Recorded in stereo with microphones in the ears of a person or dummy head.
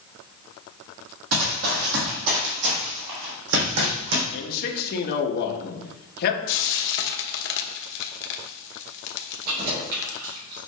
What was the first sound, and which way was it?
Running footsteps, 50° right (ahead or behind).